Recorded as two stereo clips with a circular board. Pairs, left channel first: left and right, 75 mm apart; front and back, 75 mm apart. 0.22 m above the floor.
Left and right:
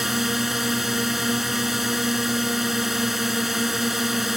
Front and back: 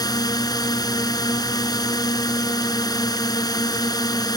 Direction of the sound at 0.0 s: 5° right.